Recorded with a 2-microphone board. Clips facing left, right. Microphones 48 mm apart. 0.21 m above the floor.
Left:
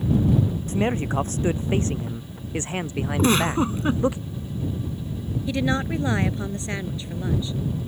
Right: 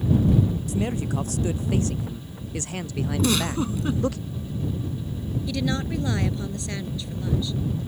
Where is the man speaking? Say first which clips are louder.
Left 3 dB; 35° left (ahead or behind); by 4.2 s 20° left (ahead or behind).